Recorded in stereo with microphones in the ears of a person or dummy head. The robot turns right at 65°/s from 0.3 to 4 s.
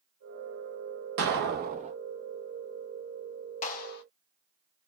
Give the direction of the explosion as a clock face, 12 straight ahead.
3 o'clock.